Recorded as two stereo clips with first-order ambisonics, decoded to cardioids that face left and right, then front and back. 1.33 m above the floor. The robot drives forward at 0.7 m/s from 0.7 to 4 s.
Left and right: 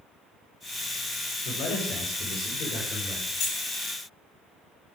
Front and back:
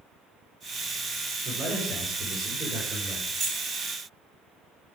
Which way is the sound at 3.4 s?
125° left.